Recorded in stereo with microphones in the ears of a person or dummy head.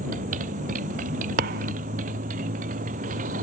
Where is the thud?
50° right (ahead or behind).